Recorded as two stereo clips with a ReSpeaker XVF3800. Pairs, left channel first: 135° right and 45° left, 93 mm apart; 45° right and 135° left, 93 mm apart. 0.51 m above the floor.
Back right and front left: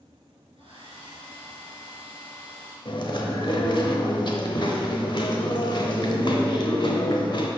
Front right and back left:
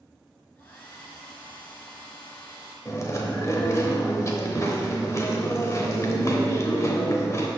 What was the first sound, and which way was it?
A hair dryer, 25° left.